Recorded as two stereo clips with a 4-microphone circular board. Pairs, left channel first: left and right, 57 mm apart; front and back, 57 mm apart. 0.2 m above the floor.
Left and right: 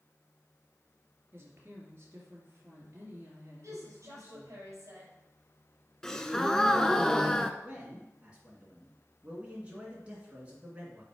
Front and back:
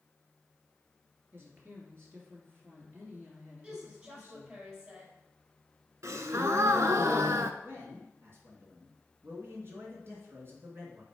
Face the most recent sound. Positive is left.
turn(degrees=-155)